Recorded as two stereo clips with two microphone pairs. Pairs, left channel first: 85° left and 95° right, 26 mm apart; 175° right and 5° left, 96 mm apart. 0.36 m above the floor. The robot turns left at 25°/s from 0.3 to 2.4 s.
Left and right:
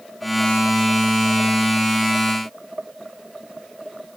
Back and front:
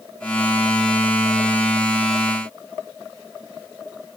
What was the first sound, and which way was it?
Only background noise.